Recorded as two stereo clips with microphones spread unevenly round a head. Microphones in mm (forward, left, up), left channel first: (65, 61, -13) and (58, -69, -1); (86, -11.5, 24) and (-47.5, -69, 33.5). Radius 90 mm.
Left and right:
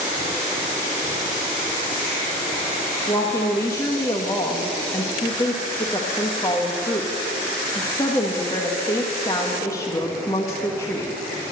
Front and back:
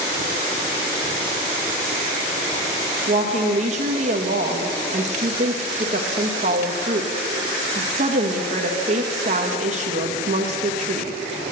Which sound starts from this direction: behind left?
A woman speaking, at 3.1 s.